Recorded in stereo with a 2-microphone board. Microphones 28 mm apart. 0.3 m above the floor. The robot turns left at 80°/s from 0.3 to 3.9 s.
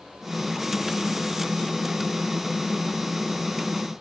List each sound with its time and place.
Only background noise.